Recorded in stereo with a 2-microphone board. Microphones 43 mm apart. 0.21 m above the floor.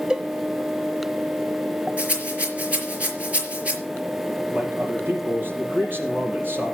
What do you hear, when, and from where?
0.1 s a cowbell: 20° right (ahead or behind), 0.6 m
2.0 s a rattle: 30° right (ahead or behind), 5 m
4.5 s a man speaking: 50° right (ahead or behind), 5.5 m